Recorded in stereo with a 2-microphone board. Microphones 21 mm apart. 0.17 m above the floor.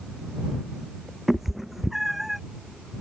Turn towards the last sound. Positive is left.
turn(degrees=-10)  # may be behind; listen again after turning